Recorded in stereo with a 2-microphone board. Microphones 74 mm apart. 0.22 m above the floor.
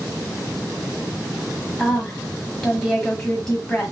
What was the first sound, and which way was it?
A woman speaking, 5° left (ahead or behind).